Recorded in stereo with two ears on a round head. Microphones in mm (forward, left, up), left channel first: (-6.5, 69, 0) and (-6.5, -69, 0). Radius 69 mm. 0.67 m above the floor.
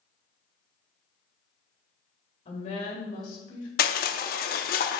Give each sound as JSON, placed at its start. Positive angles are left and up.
{"t": 2.5, "sound": "a woman speaking", "side_deg": 45, "distance_m": 2.5}
{"t": 3.8, "sound": "crushing", "side_deg": 65, "distance_m": 0.6}